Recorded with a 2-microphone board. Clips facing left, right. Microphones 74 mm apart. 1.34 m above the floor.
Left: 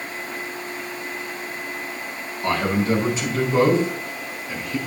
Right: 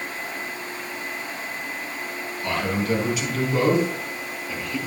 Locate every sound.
2.4 s a man speaking: 35° left (ahead or behind), 5.5 m; by 4.8 s 25° left (ahead or behind), 6.5 m